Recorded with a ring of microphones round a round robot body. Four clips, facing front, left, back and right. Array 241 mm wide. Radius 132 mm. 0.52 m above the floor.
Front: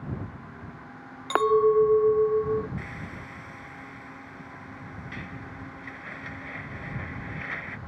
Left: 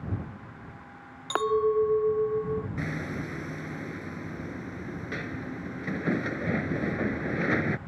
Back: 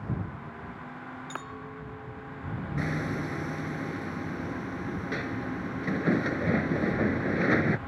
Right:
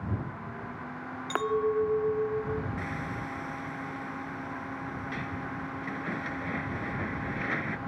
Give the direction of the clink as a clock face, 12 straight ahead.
12 o'clock.